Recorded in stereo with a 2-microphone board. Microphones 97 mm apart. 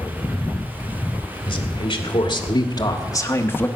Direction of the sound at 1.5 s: 55° left (ahead or behind).